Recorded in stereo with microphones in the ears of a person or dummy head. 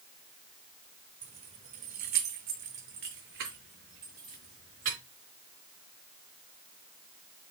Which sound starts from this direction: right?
Keys jangling, at 1.2 s.